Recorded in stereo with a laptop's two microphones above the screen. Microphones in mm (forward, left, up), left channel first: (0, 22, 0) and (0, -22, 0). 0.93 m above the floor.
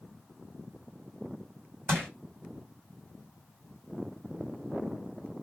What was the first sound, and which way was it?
Crushing, 70° right (ahead or behind).